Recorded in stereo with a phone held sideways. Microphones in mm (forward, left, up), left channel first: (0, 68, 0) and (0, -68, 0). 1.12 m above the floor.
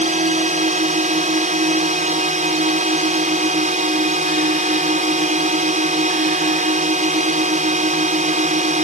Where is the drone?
65° right (ahead or behind).